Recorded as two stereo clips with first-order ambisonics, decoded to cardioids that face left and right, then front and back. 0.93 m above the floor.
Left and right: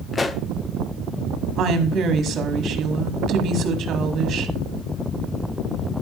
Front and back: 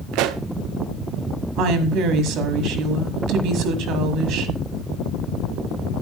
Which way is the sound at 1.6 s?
145° right.